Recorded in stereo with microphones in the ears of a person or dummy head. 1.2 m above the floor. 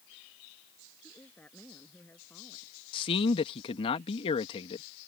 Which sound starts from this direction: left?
A man speaking, at 2.9 s.